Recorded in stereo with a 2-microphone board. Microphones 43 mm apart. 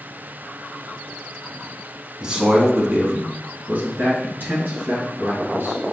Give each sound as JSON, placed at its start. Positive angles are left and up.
{"t": 2.2, "sound": "a man speaking", "side_deg": -20, "distance_m": 1.1}